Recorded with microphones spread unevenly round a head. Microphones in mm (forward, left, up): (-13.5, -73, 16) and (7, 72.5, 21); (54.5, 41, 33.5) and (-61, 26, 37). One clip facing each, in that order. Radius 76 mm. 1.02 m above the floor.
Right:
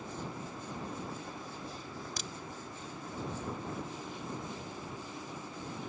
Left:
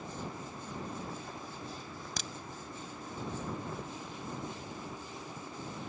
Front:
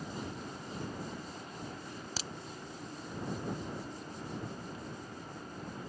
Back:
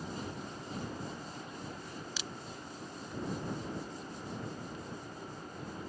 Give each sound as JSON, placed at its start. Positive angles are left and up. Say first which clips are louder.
{"t": 2.2, "sound": "a crack", "louder": "left 1 dB, front 1 dB", "azimuth_deg": 55}